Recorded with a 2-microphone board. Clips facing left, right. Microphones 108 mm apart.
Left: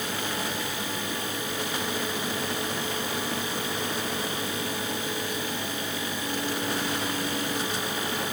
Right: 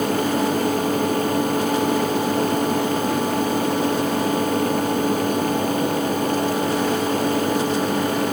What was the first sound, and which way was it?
Only background noise.